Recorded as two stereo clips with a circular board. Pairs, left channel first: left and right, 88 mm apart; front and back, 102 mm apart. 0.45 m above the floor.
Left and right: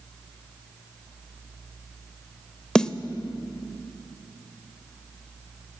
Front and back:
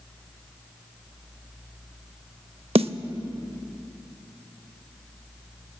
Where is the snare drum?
170° left, 0.5 m.